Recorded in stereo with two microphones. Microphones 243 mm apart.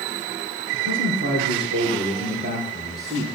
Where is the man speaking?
55° right (ahead or behind), 4 m; by 3.2 s 25° right (ahead or behind), 4 m.